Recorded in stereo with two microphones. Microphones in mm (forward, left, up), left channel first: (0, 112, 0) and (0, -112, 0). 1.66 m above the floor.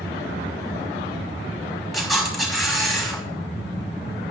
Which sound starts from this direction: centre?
A camera shutter, at 1.9 s.